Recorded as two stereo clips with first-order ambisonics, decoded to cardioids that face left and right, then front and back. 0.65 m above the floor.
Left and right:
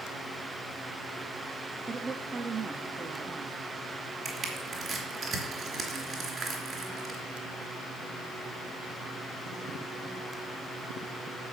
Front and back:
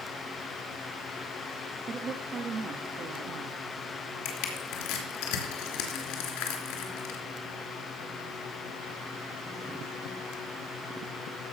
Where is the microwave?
I don't hear a microwave.